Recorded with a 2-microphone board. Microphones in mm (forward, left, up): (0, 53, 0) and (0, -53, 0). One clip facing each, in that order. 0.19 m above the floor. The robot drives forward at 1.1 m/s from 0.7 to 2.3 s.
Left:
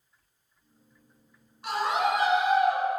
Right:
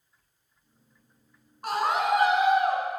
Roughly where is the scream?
Right.